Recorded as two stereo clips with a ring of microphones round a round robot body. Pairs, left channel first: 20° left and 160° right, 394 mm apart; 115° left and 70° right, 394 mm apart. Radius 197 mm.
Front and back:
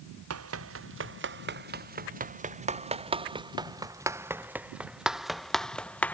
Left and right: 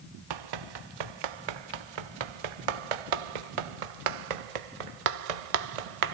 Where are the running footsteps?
100° right; by 6.1 s 65° right.